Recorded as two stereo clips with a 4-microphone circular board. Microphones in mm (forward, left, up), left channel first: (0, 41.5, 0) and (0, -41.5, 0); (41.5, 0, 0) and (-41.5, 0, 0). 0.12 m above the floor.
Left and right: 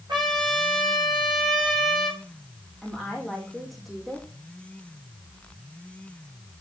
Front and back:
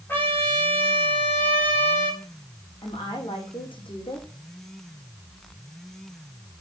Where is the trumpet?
65° right, 7.5 m.